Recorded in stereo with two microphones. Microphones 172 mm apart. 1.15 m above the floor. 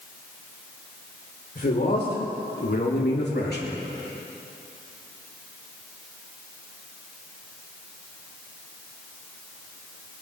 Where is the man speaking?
65° left (ahead or behind), 4 m; by 3.8 s 70° left (ahead or behind), 2.5 m.